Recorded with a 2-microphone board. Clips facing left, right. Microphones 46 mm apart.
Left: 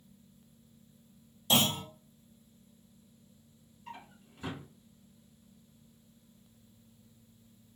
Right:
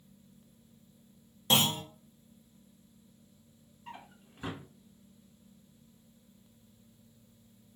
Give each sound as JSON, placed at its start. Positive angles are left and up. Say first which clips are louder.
{"t": 1.5, "sound": "a clunk", "louder": "right 1 dB", "side_deg": -45, "distance_m": 1.0}
{"t": 3.9, "sound": "a drawer", "louder": "even", "side_deg": -25, "distance_m": 0.8}